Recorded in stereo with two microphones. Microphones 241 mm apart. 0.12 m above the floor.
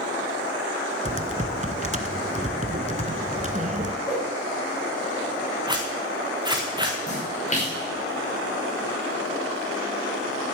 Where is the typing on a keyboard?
30° right (ahead or behind), 0.8 m.